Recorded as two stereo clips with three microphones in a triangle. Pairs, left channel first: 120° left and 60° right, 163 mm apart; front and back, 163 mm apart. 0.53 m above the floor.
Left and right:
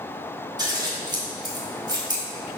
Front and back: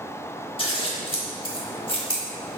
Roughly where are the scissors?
Ahead.